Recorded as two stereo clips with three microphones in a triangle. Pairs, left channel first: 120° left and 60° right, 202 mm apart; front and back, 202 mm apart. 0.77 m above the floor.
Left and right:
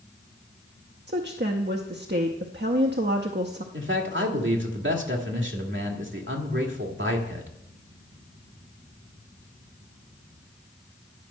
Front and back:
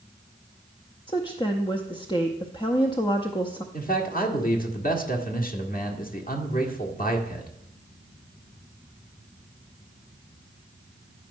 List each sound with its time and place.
1.1 s a woman speaking: 65° right, 0.7 m
3.7 s a man speaking: 45° right, 1.7 m